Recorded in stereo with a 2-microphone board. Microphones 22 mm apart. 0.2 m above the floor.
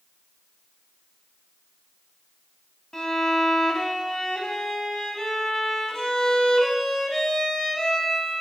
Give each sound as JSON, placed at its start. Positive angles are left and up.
{"t": 2.9, "sound": "a violin", "side_deg": 30, "distance_m": 1.2}